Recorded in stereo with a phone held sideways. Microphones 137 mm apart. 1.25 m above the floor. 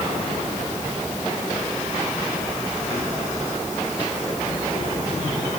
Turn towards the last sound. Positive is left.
No sound to turn to.